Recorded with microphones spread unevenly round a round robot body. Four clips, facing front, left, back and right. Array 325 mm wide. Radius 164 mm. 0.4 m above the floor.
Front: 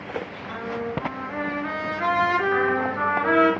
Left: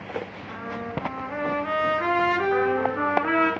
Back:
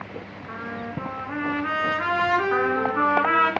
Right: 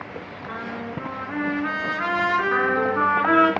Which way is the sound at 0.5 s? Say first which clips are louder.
Right 2 dB, front 3 dB; 130° right.